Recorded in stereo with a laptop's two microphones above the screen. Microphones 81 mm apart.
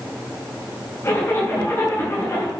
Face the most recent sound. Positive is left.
turn(degrees=35)  # may be behind; listen again after turning